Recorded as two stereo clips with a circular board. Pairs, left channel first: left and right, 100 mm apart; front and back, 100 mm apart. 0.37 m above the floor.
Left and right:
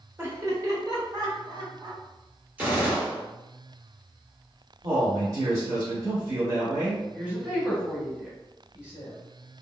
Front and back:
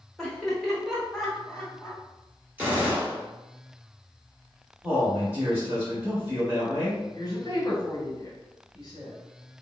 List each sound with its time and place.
0.2 s laughter: 85° right, 0.9 m; by 2.0 s 90° right, 1.6 m
2.6 s a gunshot: 140° right, 1.4 m
4.8 s a man speaking: 125° right, 1.3 m
7.1 s a woman speaking: 15° right, 1.6 m